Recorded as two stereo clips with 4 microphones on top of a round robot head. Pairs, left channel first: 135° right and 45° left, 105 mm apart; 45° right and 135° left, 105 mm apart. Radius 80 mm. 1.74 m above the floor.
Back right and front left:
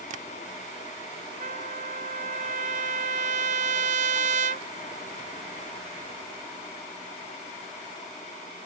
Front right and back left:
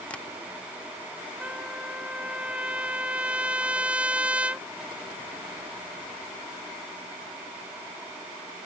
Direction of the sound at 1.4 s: 55° left.